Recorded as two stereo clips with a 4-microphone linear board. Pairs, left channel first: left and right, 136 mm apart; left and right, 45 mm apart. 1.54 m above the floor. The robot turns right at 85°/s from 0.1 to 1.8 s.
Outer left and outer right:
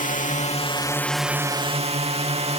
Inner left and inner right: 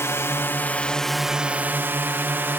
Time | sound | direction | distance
0.0 | a drone | 90° left | ?